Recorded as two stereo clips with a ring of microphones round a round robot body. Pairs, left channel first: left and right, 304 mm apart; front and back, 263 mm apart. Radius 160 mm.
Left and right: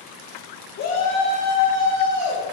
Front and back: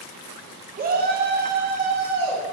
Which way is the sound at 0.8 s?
130° left.